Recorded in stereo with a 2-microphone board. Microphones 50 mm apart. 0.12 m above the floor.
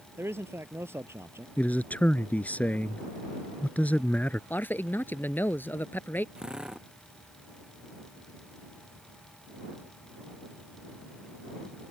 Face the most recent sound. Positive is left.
turn(degrees=-15)  # may be behind; listen again after turning